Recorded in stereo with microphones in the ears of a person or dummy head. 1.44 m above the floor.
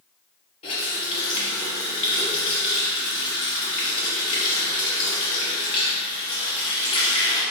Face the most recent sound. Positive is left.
turn(degrees=40)  # may be behind; listen again after turning